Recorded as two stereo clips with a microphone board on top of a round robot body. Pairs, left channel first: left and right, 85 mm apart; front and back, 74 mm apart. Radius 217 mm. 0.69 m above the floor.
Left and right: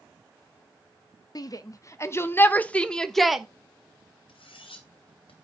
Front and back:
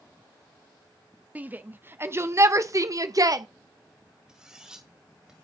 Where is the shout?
115° left, 1.6 m; by 3.5 s 175° right, 1.4 m.